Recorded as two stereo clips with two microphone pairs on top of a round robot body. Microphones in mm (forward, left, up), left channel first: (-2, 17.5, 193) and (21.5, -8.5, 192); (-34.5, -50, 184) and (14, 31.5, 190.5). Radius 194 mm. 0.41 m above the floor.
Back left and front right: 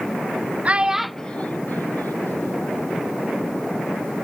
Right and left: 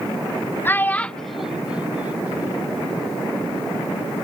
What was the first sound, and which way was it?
A child speaking, 70° right.